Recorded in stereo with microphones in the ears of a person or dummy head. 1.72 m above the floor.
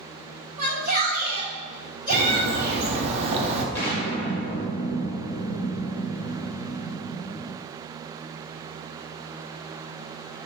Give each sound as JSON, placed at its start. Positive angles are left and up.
{"t": 0.6, "sound": "a shout", "side_deg": -45, "distance_m": 1.2}
{"t": 2.1, "sound": "a bird", "side_deg": -30, "distance_m": 0.6}
{"t": 3.8, "sound": "an explosion", "side_deg": 5, "distance_m": 0.9}